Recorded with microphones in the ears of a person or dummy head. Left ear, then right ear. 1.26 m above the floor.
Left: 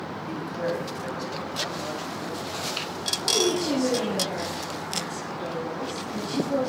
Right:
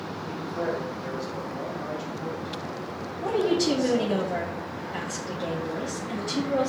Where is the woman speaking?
10° right (ahead or behind), 1.2 m.